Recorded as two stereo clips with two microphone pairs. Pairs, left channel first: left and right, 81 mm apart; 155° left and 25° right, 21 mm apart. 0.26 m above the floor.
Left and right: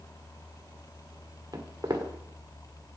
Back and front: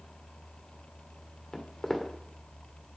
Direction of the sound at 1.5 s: 140° right.